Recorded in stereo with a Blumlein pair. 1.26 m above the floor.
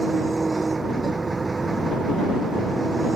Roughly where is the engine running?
Ahead.